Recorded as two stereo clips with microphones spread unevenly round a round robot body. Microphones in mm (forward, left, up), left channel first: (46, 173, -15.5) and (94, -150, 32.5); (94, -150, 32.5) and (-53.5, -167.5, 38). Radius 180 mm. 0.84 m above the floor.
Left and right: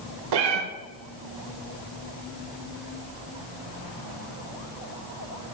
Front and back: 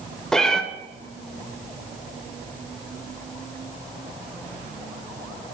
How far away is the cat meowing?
About 1.2 m.